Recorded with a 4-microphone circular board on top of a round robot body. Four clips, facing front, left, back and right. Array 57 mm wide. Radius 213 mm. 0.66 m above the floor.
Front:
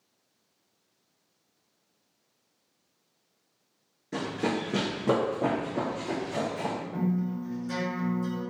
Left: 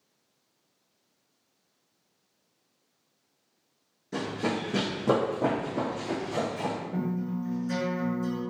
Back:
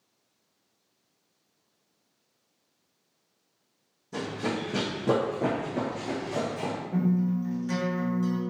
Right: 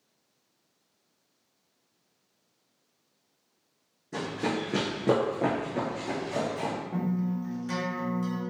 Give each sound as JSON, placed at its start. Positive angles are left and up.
{"t": 4.1, "sound": "running footsteps", "azimuth_deg": 20, "distance_m": 0.7}
{"t": 6.9, "sound": "a guitar", "azimuth_deg": -120, "distance_m": 1.9}